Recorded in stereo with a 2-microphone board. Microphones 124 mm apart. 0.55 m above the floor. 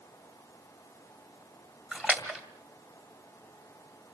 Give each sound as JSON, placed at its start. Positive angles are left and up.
{"t": 1.9, "sound": "a splash", "side_deg": -10, "distance_m": 2.0}